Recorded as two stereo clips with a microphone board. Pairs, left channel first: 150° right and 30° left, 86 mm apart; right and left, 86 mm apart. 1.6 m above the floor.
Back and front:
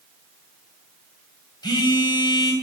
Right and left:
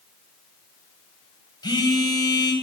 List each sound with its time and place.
1.6 s a phone buzzing: 120° right, 0.8 m